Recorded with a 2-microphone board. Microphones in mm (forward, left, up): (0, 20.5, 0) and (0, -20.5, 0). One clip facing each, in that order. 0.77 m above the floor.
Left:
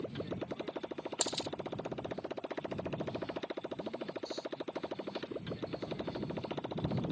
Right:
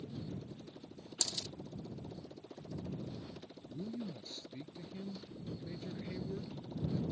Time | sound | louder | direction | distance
0.0 | a motorcycle | left 6 dB | 75° left (ahead or behind) | ?
1.2 | a dropped coin | left 3 dB | 35° left (ahead or behind) | ?
3.7 | a man speaking | left 3 dB | 45° right (ahead or behind) | ?